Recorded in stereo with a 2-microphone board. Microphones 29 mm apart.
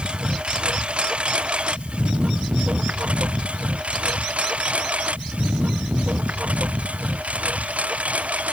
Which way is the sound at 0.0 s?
35° right (ahead or behind).